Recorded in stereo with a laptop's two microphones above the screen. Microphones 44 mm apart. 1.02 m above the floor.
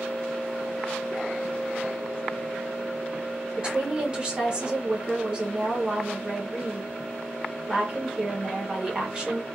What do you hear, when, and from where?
3.6 s a woman speaking: 25° right (ahead or behind), 0.8 m